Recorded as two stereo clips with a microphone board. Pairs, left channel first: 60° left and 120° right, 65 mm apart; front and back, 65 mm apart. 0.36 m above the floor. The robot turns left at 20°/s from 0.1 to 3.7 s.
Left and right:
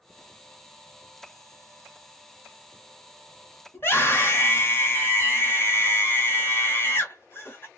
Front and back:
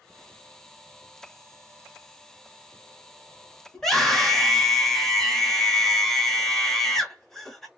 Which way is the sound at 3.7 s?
80° left.